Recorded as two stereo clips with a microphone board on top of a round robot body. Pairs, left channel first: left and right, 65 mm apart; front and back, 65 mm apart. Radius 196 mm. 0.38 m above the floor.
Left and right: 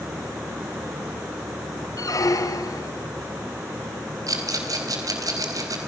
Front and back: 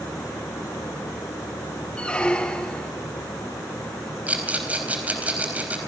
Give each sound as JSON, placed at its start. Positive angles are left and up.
{"t": 2.0, "sound": "a squeak", "azimuth_deg": 75, "distance_m": 1.5}
{"t": 4.3, "sound": "a rattle", "azimuth_deg": -110, "distance_m": 4.0}